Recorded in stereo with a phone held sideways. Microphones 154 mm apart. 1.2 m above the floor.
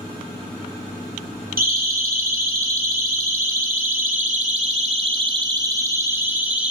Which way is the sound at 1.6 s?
75° right (ahead or behind).